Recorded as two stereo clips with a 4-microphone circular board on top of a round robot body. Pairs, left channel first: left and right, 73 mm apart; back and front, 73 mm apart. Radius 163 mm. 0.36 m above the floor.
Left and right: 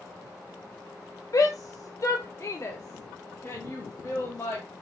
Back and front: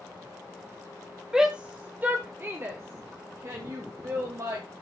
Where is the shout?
80° left, 1.2 m; by 4.7 s 30° left, 2.5 m.